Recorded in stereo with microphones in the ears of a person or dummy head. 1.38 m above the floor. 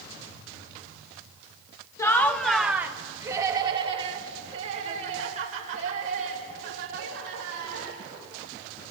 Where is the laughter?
15° left (ahead or behind), 1.2 m; by 8.0 s 55° right (ahead or behind), 4.5 m.